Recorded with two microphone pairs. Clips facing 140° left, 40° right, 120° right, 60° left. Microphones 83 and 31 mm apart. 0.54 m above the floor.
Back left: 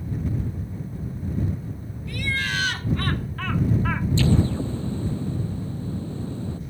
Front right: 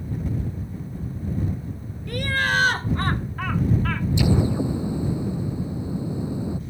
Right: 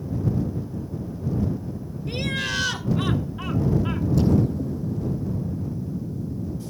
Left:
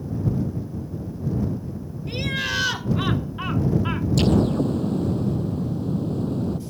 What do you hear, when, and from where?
2.1 s laughter: 25° right; by 4.1 s 100° left
4.2 s an explosion: 35° left